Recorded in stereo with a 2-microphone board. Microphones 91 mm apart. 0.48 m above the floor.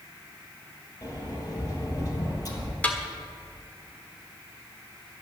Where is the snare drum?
15° left (ahead or behind), 1.5 m.